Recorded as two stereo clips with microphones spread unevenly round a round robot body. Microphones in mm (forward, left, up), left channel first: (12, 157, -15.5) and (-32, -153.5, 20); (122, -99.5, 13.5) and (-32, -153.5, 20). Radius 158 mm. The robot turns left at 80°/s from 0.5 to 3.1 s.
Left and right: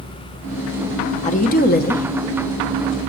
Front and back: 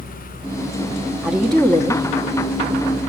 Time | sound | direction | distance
1.2 | a woman speaking | 120° left | 0.9 m